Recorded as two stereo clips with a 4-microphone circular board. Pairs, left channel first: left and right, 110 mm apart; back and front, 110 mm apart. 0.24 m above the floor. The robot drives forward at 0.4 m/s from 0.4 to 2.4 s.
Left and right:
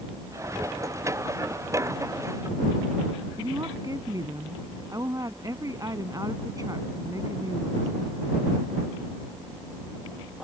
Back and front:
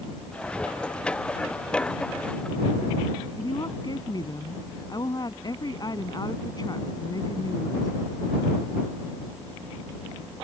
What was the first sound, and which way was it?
A woman speaking, 140° right.